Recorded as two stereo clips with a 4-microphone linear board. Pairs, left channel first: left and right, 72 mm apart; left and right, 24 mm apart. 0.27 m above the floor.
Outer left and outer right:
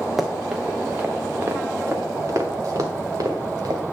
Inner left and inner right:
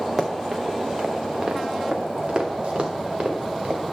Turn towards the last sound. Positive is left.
turn(degrees=-55)  # may be behind; listen again after turning